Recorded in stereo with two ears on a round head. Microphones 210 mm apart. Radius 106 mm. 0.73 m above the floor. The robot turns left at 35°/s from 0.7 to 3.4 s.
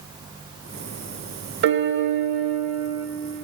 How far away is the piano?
About 0.7 m.